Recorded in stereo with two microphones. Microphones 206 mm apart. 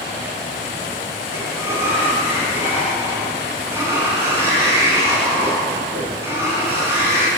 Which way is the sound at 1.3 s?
15° right (ahead or behind).